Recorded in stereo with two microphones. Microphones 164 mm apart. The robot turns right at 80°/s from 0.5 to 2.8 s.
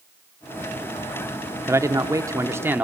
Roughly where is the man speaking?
Centre.